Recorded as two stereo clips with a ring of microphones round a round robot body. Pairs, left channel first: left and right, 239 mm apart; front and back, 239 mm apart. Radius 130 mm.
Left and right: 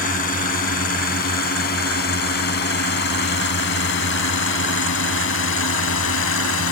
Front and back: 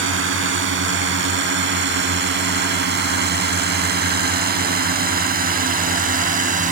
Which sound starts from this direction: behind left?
A drone, at 0.0 s.